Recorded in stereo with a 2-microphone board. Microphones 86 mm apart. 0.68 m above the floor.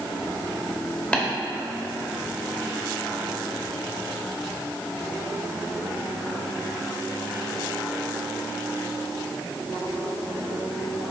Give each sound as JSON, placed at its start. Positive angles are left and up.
{"t": 1.1, "sound": "tapping", "side_deg": 15, "distance_m": 1.4}